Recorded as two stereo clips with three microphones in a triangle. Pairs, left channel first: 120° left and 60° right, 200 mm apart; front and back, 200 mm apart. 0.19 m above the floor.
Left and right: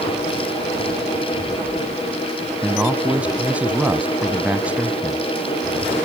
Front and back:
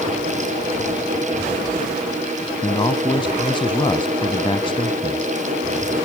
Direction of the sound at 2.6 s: 15° left.